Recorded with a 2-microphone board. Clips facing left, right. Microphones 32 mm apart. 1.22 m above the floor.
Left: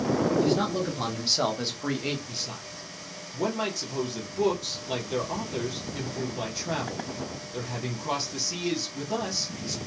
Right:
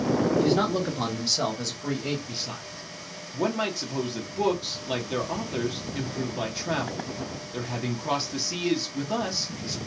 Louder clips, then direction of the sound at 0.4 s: Right 2 dB; 40° right (ahead or behind).